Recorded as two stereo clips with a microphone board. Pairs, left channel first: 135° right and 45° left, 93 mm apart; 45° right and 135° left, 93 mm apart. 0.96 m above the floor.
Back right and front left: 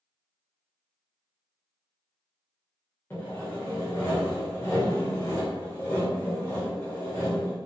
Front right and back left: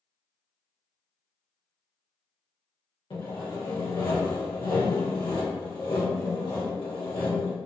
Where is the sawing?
70° right, 1.2 m.